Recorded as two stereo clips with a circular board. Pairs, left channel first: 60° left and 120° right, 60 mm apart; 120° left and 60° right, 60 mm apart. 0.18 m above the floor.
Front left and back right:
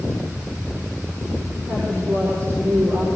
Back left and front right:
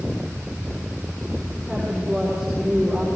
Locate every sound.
1.7 s a woman speaking: 155° right, 6.5 m